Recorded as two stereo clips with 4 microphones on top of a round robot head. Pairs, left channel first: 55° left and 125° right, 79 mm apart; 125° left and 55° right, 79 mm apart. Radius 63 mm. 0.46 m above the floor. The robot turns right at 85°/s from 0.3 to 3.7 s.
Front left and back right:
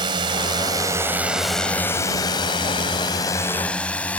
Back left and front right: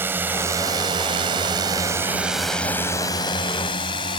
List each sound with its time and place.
0.0 s a drone: 115° right; by 4.2 s 125° left